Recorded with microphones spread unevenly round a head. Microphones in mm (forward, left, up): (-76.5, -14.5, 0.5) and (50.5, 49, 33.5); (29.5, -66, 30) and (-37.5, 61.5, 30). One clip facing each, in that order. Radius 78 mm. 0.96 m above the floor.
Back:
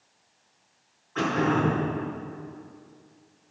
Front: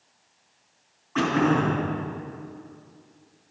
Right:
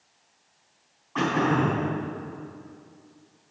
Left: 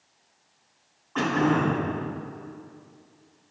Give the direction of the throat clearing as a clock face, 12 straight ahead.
11 o'clock.